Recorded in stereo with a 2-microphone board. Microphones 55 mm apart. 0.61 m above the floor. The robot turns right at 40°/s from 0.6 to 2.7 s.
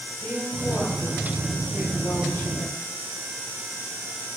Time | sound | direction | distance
0.2 | a woman speaking | 30° left | 2.5 m